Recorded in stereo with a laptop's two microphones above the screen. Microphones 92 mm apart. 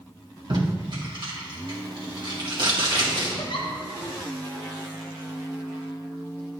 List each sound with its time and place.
0.5 s tape being pulled: 60° right (ahead or behind), 2 m
3.4 s a giggle: 65° left (ahead or behind), 1.1 m